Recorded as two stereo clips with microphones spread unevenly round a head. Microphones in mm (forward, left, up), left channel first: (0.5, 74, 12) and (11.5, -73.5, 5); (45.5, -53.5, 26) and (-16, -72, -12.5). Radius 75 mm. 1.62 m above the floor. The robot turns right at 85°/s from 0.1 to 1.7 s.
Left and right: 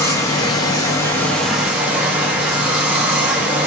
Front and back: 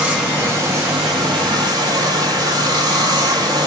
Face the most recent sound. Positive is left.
turn(degrees=-165)